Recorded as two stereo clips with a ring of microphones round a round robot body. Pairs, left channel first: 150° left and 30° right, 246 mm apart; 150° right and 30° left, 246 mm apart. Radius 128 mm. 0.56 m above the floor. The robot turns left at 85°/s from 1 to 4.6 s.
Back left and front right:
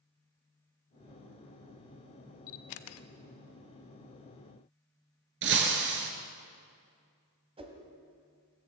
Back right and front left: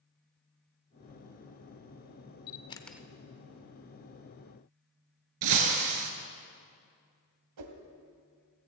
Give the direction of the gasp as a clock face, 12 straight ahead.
I don't hear a gasp.